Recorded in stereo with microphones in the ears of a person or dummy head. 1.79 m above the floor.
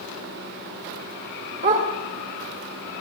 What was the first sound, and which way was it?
A dog barking, 40° right (ahead or behind).